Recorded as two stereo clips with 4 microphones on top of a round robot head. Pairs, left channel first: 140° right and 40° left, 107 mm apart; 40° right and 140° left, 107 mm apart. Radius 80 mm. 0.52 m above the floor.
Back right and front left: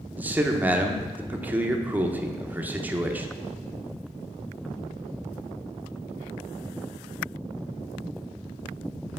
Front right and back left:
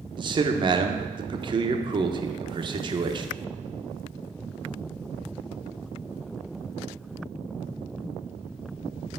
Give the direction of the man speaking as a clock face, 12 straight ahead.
8 o'clock.